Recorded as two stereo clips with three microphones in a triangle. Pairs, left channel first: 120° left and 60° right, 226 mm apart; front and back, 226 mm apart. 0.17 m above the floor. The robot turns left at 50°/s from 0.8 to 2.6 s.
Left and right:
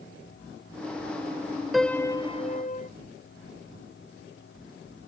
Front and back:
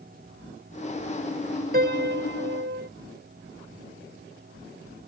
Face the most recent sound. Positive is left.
turn(degrees=170)